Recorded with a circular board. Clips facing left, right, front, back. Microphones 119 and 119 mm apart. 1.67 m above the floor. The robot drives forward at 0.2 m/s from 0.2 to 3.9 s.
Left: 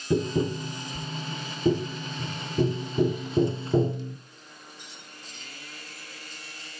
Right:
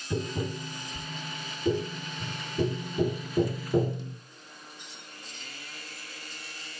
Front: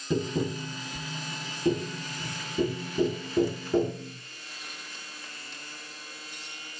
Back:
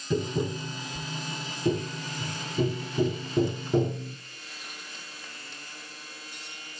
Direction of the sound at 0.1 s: 70° left.